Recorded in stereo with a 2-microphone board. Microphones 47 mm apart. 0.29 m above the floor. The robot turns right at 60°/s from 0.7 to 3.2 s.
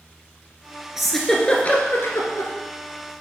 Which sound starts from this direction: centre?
A giggle, at 1.0 s.